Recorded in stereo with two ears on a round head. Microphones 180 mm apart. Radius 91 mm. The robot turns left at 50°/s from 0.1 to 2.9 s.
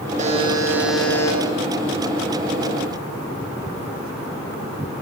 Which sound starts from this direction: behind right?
A buzzer, at 0.2 s.